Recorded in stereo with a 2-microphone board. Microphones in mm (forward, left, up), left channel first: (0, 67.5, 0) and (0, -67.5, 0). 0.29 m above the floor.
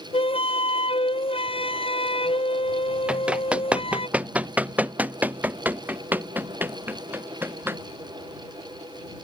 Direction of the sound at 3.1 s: 10° right (ahead or behind).